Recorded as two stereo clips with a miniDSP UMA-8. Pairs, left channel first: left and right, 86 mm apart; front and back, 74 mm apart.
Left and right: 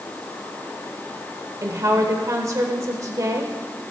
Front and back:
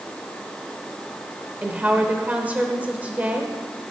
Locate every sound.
1.6 s a woman speaking: 120° right, 1.1 m